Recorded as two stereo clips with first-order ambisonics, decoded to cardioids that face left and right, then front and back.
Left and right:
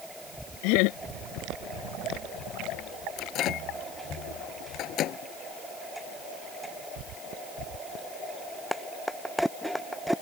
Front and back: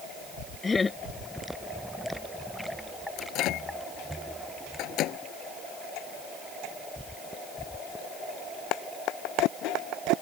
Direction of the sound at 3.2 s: 40° left.